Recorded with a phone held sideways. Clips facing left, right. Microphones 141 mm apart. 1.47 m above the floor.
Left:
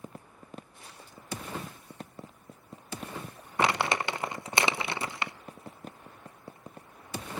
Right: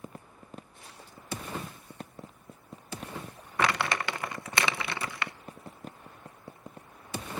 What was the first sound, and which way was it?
Crumpling, 25° left (ahead or behind).